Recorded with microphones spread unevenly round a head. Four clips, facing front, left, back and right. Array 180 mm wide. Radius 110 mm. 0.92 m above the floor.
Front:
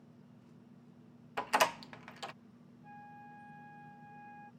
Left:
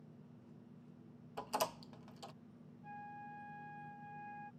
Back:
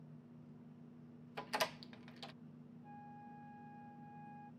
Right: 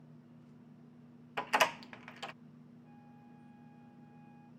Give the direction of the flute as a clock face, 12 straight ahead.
10 o'clock.